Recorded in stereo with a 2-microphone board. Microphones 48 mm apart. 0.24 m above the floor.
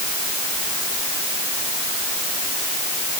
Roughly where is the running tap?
No running tap in this recording.